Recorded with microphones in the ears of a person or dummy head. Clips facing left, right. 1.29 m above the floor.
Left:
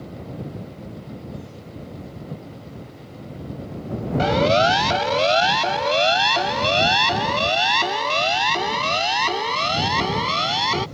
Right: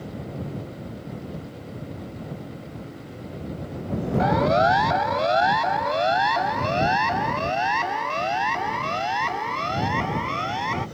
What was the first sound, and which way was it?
A siren, 40° left (ahead or behind).